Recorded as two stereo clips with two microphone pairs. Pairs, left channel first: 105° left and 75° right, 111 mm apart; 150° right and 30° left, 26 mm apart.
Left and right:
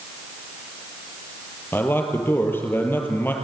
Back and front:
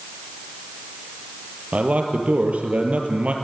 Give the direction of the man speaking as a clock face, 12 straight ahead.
11 o'clock.